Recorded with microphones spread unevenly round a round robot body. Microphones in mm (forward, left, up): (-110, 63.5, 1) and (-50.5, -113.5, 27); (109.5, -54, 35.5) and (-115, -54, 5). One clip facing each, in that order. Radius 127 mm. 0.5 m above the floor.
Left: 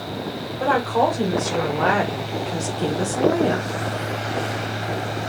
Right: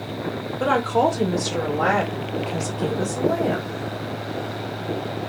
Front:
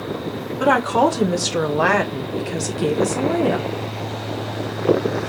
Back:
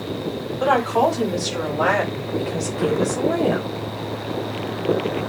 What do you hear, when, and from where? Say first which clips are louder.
0.6 s a woman speaking: even, front 2 dB; 5° right, 2 m; by 3.7 s 85° left, 1.4 m